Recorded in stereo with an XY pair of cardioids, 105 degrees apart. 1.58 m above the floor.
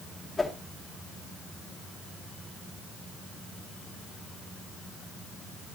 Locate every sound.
0.4 s a whoosh: 20° left, 2 m